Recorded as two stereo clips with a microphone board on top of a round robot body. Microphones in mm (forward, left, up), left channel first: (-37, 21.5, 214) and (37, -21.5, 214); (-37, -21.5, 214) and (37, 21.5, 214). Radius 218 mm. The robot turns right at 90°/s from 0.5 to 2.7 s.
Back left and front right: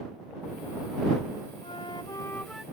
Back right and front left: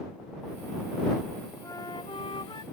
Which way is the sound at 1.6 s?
150° left.